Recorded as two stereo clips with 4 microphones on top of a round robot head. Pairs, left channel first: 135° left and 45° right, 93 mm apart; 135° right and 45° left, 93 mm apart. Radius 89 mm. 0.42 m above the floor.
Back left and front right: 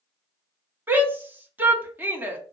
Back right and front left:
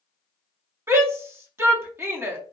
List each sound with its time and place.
0.9 s a shout: 5° left, 1.4 m